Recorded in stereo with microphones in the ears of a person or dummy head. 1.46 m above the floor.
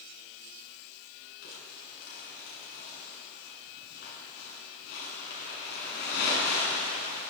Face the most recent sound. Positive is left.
turn(degrees=60)  # may be behind; listen again after turning